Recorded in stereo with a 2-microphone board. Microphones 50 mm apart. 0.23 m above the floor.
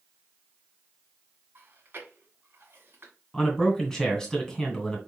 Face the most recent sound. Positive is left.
turn(degrees=10)  # may be behind; listen again after turning